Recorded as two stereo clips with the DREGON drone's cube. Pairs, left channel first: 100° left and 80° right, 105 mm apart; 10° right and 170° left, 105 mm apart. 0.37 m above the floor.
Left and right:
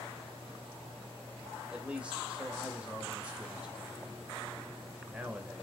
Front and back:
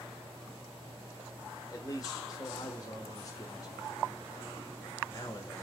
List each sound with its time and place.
1.7 s a man speaking: 10° right, 1.2 m